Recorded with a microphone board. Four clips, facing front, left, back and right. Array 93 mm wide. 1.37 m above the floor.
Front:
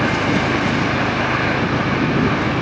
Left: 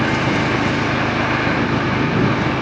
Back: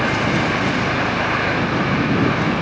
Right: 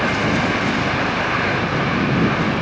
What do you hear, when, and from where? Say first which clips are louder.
0.0 s an engine running: left 1 dB, front 1 dB; 80° left